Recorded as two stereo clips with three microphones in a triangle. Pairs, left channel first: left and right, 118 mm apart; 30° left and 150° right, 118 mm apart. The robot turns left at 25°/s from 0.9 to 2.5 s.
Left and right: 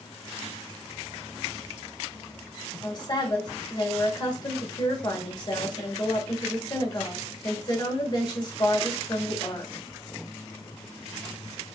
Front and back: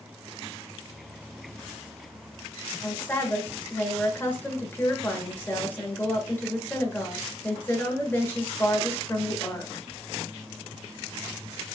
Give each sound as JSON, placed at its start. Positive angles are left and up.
{"t": 2.8, "sound": "a woman speaking", "azimuth_deg": 90, "distance_m": 1.3}